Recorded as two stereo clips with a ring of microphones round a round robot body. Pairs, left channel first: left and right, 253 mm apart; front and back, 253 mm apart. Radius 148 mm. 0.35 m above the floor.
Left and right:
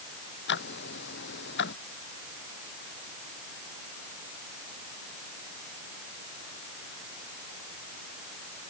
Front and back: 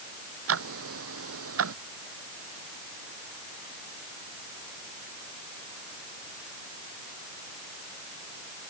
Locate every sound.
0.5 s ticking: 145° left